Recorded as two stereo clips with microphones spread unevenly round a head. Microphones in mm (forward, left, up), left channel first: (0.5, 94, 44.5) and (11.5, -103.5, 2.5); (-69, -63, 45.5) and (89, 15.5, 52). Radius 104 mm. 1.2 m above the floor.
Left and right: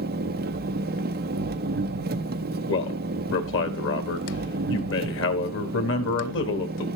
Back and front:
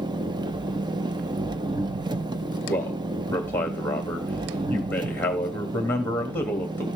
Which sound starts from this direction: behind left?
A man speaking, at 2.7 s.